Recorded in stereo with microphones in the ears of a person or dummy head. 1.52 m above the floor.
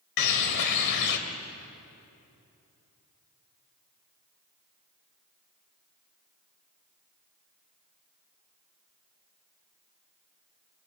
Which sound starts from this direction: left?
A bird, at 0.2 s.